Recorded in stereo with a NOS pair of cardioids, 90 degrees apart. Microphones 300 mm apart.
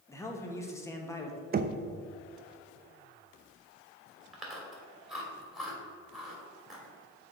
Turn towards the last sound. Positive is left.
turn(degrees=0)